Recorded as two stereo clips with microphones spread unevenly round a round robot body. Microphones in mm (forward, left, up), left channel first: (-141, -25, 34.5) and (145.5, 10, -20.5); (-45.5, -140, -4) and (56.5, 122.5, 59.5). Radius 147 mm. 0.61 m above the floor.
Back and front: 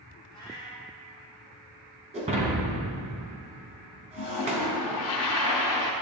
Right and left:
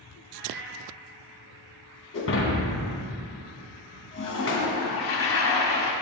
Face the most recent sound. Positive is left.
turn(degrees=-150)